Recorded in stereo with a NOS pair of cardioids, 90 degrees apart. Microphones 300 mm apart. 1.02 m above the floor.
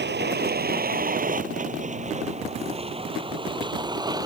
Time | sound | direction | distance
0.0 | a vehicle | 35° right | ?